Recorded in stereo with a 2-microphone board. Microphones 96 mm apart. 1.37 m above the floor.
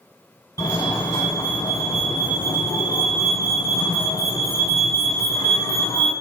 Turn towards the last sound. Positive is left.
turn(degrees=35)  # may be behind; listen again after turning